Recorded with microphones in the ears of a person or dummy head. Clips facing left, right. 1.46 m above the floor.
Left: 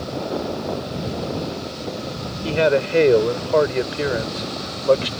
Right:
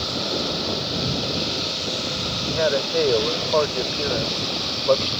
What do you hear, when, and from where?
2.4 s a man speaking: 35° left (ahead or behind); by 5.1 s 20° left (ahead or behind)